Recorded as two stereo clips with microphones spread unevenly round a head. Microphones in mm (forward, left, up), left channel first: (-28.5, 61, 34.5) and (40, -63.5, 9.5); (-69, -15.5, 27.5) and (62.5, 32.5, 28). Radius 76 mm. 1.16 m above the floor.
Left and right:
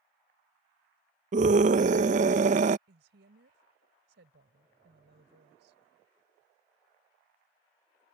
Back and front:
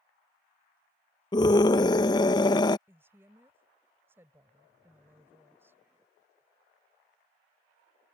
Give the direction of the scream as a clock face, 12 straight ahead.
3 o'clock.